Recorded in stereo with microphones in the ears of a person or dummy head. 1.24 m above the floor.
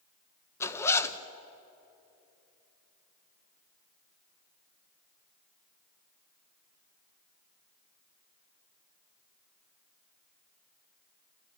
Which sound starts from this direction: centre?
A zipper, at 0.6 s.